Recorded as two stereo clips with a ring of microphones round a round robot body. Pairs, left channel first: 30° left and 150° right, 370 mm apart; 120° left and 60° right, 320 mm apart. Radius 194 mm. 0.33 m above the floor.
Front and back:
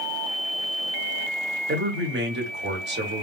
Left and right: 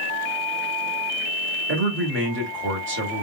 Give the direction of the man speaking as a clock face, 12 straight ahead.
3 o'clock.